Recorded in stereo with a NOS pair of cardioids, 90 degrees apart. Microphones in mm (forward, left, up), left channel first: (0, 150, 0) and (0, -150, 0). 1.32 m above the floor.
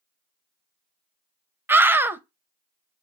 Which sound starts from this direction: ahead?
A scream, at 1.7 s.